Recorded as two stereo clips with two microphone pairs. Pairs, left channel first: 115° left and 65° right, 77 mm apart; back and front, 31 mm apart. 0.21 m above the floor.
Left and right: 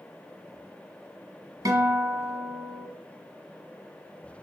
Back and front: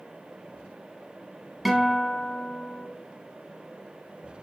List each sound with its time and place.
1.6 s a guitar: 85° right, 0.8 m